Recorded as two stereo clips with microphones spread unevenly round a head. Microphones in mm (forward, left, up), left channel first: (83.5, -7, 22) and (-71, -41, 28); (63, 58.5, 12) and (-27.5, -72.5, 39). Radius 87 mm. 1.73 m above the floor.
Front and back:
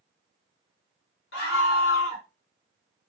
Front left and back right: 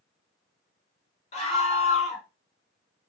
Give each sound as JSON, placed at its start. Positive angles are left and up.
{"t": 1.3, "sound": "a scream", "azimuth_deg": 5, "distance_m": 1.4}